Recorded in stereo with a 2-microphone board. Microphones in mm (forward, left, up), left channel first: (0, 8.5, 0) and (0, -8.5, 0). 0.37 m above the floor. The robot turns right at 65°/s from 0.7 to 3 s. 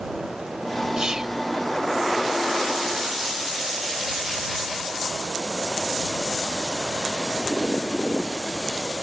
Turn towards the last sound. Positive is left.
turn(degrees=65)